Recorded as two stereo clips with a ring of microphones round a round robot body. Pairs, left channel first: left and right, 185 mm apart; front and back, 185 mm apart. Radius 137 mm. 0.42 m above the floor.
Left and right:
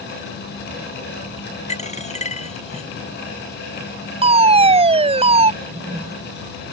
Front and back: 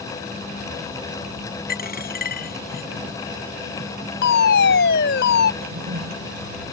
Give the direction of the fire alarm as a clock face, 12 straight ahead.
1 o'clock.